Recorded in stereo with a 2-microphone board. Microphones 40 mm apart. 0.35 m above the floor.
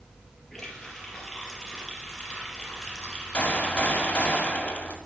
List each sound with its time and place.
0.5 s a running tap: 10° left (ahead or behind), 5 m
3.3 s a gunshot: 35° left (ahead or behind), 2 m